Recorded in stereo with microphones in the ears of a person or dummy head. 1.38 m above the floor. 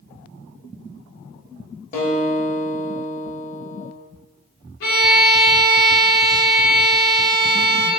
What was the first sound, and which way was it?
A guitar, 45° left (ahead or behind).